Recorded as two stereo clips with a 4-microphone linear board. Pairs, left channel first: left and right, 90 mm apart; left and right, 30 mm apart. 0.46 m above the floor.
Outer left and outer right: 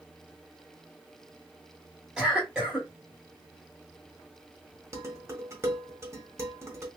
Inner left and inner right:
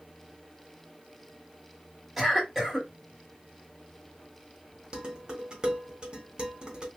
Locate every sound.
2.2 s a cough: 10° right (ahead or behind), 2.5 m
4.9 s dishes clattering: 30° right (ahead or behind), 1.5 m